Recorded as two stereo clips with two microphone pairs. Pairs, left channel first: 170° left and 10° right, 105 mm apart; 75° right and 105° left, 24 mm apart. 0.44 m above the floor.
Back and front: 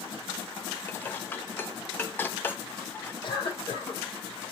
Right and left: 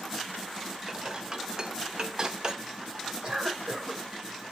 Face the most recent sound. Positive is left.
turn(degrees=150)